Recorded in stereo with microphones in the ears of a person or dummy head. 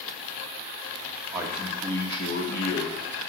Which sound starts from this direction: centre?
A man speaking, at 1.3 s.